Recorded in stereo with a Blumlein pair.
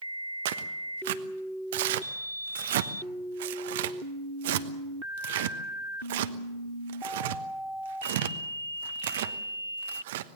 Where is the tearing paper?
55° right, 1.1 m.